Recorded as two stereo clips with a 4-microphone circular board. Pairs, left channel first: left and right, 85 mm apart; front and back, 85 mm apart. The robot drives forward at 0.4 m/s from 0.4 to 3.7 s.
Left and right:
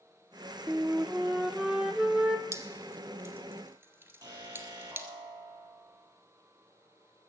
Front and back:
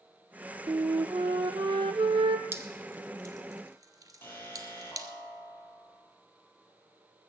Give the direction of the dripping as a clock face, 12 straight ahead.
4 o'clock.